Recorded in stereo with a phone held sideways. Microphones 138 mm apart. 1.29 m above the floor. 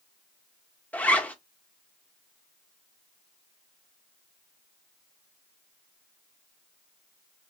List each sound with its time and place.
0.9 s a zipper: 10° left (ahead or behind), 1.1 m